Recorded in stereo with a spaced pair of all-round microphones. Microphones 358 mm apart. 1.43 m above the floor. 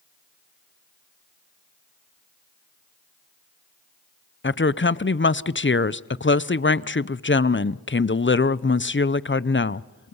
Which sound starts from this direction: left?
A woman speaking, at 4.4 s.